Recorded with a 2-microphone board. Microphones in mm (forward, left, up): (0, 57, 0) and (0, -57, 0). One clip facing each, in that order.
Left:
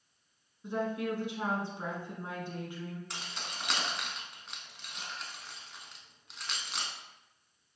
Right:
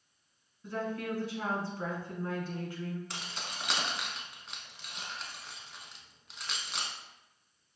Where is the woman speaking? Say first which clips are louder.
Left 2 dB; 20° left (ahead or behind), 1.0 m.